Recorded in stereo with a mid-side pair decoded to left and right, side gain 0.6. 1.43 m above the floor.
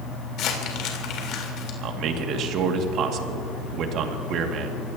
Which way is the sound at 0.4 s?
60° left.